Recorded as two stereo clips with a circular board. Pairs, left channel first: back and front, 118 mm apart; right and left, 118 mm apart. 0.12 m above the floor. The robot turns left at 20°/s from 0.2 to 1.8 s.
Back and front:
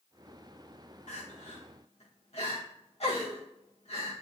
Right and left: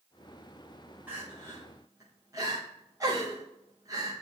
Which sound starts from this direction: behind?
Crying, at 1.1 s.